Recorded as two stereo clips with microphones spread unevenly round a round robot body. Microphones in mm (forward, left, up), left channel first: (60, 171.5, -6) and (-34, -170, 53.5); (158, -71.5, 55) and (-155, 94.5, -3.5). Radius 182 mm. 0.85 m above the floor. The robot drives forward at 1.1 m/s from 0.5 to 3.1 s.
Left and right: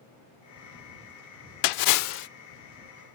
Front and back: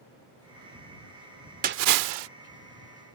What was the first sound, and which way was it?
A splash, 80° left.